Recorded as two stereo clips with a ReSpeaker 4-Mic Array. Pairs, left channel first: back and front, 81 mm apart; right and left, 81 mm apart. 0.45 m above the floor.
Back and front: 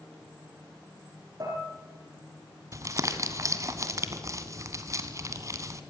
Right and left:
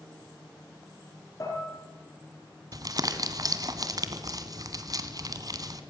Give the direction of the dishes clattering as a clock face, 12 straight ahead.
1 o'clock.